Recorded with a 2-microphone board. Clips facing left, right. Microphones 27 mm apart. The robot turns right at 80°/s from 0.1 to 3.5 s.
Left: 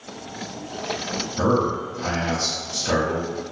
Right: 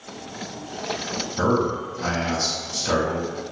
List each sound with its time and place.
1.4 s a man speaking: 25° right (ahead or behind), 1.0 m; by 3.3 s 20° left (ahead or behind), 1.0 m